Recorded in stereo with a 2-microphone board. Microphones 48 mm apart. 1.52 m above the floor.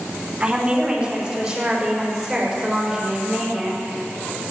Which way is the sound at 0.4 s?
20° right (ahead or behind).